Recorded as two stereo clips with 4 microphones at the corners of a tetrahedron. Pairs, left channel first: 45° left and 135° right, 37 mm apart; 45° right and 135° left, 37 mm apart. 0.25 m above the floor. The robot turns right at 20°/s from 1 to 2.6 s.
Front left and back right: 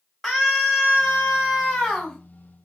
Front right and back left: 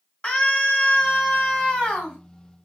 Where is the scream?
45° right, 1.2 m; by 2.2 s 25° right, 1.2 m.